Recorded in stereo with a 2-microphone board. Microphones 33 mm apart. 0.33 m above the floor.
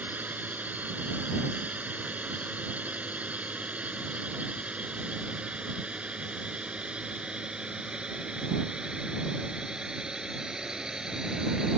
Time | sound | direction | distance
0.0 | a drone | 60° right (ahead or behind) | ?